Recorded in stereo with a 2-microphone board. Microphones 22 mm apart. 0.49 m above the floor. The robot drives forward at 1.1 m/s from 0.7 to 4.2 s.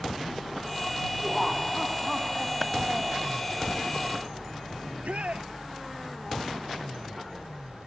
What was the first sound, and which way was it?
Laughter, 10° right (ahead or behind).